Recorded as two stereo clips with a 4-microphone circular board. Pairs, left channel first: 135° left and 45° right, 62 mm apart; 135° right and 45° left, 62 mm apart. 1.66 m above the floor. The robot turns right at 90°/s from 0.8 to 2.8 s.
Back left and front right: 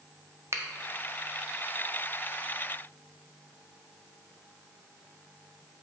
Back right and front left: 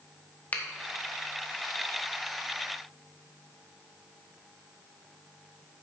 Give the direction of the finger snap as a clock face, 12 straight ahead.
3 o'clock.